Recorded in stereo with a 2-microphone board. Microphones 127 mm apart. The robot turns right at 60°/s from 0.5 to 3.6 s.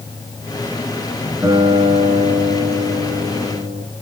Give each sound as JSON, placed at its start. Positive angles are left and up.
{"t": 1.4, "sound": "a guitar", "azimuth_deg": -165, "distance_m": 8.5}